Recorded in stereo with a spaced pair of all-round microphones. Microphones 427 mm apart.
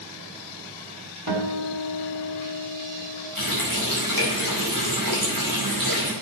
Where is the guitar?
60° right (ahead or behind), 2.5 m.